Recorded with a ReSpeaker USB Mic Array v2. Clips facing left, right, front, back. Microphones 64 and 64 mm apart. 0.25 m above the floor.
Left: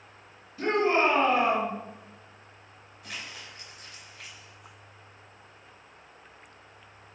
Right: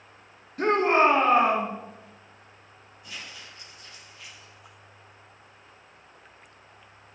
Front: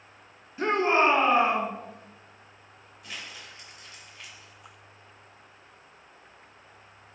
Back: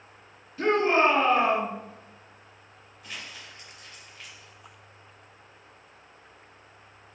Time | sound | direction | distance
0.6 | a shout | 70° right | 2 m
3.0 | crumpling | 85° left | 3.5 m